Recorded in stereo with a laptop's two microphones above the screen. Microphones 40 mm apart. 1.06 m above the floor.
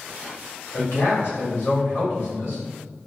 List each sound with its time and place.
0.7 s a man speaking: 65° left (ahead or behind), 1.8 m